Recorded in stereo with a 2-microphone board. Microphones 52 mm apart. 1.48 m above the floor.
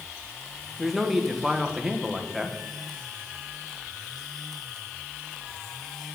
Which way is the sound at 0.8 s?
5° right (ahead or behind).